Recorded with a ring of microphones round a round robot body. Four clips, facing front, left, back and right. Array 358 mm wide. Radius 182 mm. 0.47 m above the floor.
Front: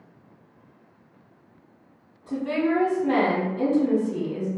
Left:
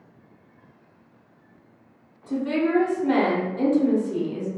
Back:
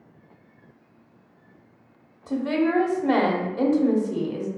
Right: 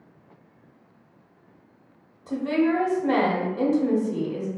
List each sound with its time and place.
2.3 s a woman speaking: 175° right, 1.0 m